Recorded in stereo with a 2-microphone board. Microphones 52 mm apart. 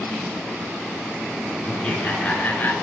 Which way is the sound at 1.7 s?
5° left (ahead or behind).